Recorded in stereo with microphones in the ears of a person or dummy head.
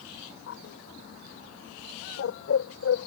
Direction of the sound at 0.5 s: 70° left (ahead or behind).